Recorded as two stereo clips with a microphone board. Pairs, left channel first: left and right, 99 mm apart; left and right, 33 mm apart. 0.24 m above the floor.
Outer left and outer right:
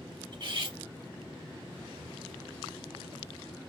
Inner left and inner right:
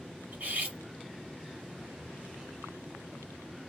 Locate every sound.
0.3 s cutlery clinking: 55° right (ahead or behind), 1.3 m